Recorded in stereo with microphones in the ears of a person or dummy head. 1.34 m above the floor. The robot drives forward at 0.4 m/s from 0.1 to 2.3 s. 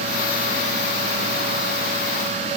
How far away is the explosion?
No explosion in this recording.